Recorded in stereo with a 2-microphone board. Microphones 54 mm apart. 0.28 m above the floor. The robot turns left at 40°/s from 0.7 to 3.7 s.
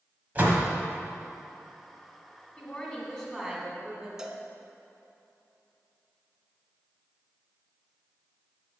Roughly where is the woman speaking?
Ahead left.